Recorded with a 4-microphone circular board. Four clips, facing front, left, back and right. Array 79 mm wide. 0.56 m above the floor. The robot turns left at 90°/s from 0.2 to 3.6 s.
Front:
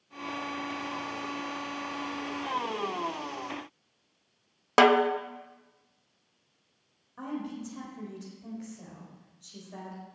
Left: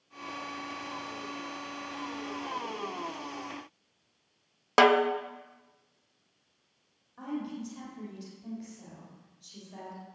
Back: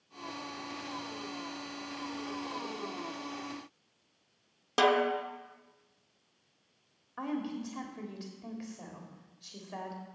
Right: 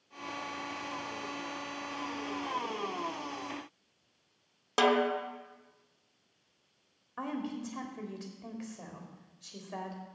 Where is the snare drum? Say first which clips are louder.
Left 5 dB, front 6 dB; 40° left, 0.7 m.